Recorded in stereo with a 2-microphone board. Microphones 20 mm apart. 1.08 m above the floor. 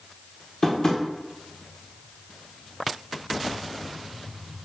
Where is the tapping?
25° left (ahead or behind), 0.7 m.